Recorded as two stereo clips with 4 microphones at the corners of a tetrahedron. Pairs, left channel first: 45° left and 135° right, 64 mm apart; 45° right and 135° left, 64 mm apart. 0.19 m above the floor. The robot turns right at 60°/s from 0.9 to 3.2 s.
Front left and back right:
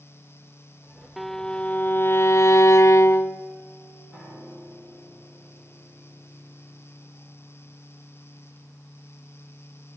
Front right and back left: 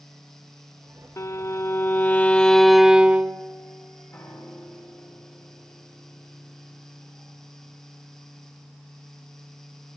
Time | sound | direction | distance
1.2 | a violin | 45° right | 0.5 m
4.1 | a piano | 70° right | 7.5 m